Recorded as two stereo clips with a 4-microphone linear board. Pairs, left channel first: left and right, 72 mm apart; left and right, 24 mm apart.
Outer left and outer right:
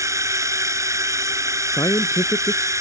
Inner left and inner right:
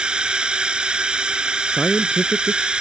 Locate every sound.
0.0 s a drone: 45° right (ahead or behind)
1.7 s a man speaking: 50° left (ahead or behind)